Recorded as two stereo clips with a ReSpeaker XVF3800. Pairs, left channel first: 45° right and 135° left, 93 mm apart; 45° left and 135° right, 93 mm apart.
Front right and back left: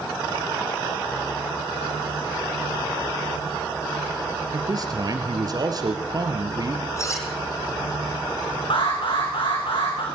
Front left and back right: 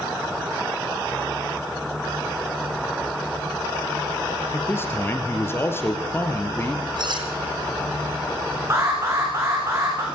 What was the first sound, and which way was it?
A man speaking, 100° left.